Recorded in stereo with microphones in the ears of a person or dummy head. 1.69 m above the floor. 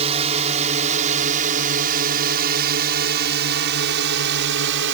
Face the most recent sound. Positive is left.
turn(degrees=-65)  # may be behind; listen again after turning